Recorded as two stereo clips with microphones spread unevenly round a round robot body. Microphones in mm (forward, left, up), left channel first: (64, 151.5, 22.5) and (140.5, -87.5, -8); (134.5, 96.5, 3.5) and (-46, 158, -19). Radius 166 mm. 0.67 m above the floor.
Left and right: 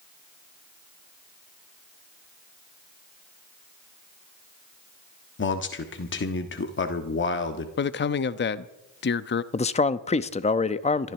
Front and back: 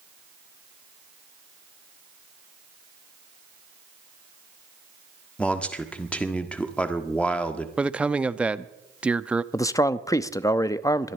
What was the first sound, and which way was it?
A man speaking, 70° left.